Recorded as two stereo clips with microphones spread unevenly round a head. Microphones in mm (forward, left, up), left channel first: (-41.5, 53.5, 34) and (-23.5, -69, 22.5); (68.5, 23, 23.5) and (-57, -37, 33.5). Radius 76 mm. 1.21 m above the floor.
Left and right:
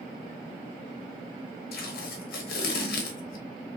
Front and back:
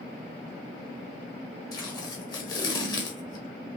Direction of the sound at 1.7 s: 90° left.